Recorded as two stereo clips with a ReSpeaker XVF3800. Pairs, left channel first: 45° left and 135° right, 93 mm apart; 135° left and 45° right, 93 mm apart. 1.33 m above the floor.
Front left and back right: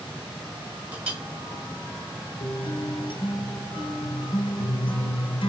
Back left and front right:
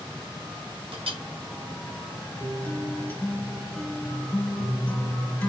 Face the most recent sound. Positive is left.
turn(degrees=65)